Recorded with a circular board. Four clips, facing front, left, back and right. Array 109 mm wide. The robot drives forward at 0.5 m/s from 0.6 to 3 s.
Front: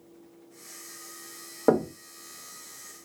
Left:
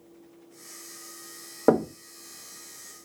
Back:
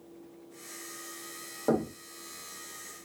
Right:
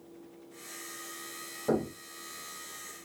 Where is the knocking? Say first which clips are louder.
Left 8 dB, front 5 dB; 60° left, 0.6 m; by 1.9 s 70° left, 0.5 m.